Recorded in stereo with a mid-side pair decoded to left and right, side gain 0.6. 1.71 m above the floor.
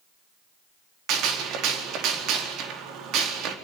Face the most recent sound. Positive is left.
turn(degrees=-65)